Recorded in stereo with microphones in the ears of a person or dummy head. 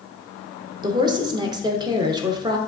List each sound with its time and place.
0.8 s a woman speaking: 15° right (ahead or behind), 0.6 m